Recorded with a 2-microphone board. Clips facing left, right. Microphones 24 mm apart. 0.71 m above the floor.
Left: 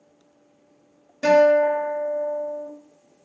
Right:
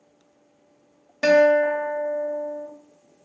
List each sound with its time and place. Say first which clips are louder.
1.2 s a guitar: left 1 dB; 45° right (ahead or behind), 0.7 m